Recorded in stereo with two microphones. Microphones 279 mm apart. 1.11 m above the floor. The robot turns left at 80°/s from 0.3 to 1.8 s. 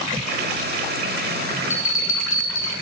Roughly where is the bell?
Left.